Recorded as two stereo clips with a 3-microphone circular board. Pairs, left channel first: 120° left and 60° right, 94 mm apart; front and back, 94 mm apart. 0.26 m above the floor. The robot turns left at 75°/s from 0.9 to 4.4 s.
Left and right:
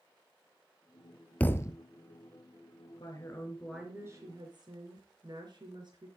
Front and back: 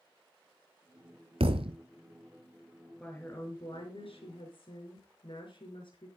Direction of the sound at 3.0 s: 80° left.